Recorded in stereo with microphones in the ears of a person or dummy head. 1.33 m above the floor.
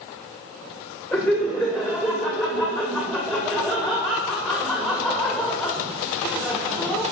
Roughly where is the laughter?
Centre.